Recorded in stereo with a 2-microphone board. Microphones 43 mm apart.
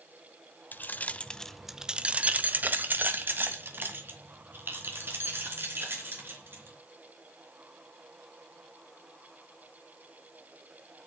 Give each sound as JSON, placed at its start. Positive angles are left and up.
{"t": 0.7, "sound": "keys jangling", "side_deg": 50, "distance_m": 0.9}